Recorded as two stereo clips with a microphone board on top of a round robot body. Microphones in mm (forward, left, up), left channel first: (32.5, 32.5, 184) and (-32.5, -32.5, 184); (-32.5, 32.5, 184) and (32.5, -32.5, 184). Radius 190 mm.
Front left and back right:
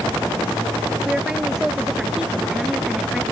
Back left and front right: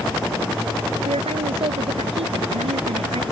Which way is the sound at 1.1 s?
50° right.